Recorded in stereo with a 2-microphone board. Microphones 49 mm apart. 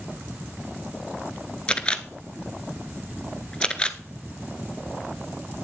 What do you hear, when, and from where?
1.7 s a camera shutter: 20° left (ahead or behind), 0.7 m